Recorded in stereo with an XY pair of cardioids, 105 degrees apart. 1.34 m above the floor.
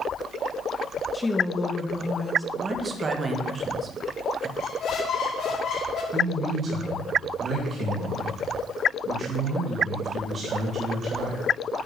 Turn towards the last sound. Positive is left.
turn(degrees=-40)